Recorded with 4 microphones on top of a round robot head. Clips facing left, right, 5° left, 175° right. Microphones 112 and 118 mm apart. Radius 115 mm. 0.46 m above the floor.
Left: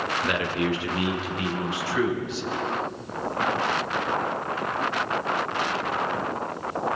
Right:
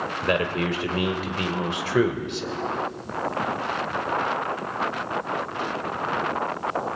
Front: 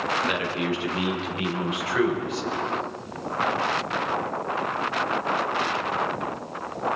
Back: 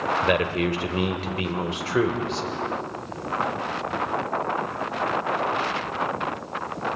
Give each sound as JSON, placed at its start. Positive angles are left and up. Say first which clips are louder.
{"t": 0.2, "sound": "a man speaking", "louder": "right 4 dB, back 4 dB", "azimuth_deg": -140, "distance_m": 2.5}